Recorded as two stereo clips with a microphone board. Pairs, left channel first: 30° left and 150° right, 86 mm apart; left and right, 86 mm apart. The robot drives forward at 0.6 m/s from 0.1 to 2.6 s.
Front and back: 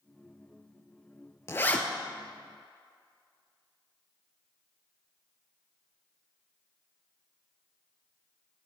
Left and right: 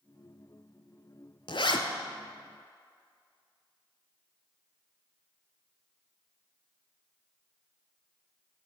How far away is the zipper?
About 0.5 m.